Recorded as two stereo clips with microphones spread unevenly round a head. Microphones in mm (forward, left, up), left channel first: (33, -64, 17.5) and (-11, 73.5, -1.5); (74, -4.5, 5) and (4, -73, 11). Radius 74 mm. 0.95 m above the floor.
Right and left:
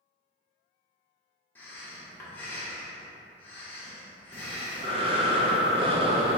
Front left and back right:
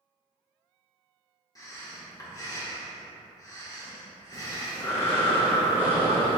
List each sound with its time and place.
1.6 s breathing: 10° left, 0.9 m
4.3 s breathing: 105° left, 0.6 m